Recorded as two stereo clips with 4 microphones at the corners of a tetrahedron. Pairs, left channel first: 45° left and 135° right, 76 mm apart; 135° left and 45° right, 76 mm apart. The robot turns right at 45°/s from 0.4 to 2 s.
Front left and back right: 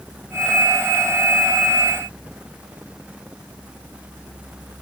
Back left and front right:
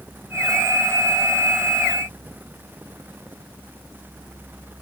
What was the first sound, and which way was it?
Only background noise.